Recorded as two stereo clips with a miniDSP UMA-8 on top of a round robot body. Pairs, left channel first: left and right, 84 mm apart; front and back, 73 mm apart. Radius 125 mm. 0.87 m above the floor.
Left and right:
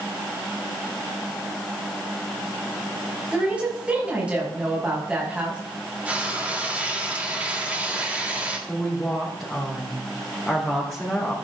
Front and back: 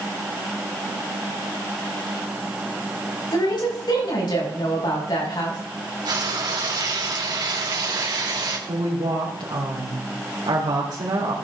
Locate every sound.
3.3 s a woman speaking: 15° right, 6 m
6.0 s frying: 165° right, 3.5 m
8.7 s a woman speaking: 170° left, 3 m